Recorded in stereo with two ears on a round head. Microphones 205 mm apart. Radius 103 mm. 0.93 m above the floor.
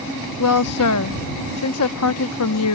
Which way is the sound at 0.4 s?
75° left (ahead or behind).